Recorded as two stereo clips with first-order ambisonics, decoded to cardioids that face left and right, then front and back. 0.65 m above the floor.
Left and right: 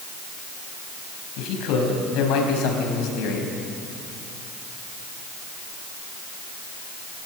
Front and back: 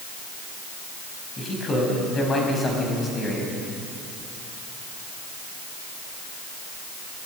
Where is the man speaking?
70° left, 4 m.